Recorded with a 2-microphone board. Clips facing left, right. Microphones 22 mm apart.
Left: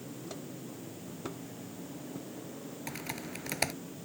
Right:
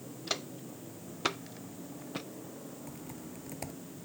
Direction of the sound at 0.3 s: 65° right (ahead or behind).